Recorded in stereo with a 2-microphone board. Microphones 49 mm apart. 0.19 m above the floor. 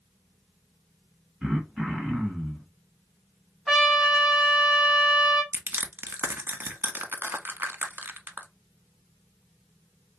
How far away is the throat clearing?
About 1.2 m.